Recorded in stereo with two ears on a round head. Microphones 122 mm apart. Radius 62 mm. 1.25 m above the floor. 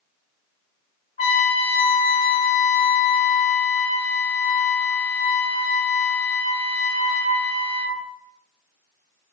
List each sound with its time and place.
1.2 s a trumpet: 45° left (ahead or behind), 2 m